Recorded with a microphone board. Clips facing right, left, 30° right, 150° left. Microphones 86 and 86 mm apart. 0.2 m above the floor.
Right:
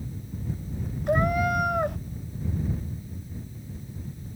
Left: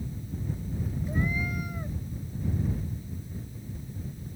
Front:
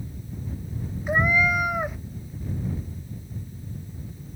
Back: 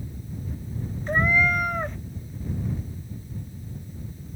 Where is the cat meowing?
110° right.